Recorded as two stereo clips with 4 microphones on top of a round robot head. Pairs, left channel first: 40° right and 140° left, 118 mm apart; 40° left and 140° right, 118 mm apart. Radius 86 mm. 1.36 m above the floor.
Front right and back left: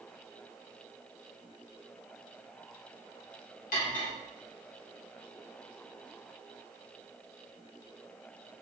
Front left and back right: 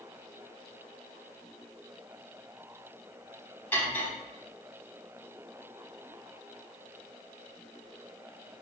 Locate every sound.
3.7 s cutlery clinking: 35° right, 2.5 m